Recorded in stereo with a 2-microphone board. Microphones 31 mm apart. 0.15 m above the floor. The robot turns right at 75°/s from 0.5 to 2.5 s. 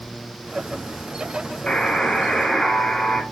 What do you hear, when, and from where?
1.7 s a buzzer: 25° left (ahead or behind), 0.9 m; by 3.2 s 20° left (ahead or behind), 0.9 m